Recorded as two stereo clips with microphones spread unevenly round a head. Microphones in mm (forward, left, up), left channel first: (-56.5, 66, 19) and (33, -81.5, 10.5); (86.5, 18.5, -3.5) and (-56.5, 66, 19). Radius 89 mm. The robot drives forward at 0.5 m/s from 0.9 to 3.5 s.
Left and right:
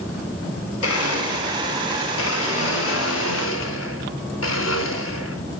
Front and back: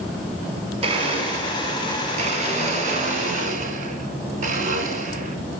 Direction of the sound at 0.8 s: 110° left.